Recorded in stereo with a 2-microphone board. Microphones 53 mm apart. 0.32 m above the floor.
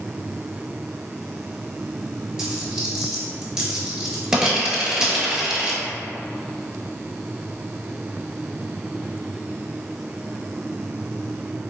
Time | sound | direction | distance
2.4 | a dropped coin | 15° right (ahead or behind) | 0.8 m